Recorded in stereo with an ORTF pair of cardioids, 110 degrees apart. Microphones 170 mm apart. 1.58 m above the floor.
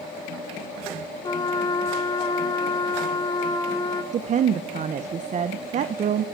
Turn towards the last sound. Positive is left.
turn(degrees=-45)